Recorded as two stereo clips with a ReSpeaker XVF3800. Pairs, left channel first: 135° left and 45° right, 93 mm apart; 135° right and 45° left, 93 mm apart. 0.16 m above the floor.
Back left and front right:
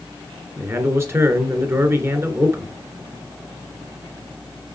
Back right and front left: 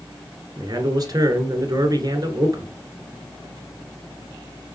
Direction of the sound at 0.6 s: 10° left.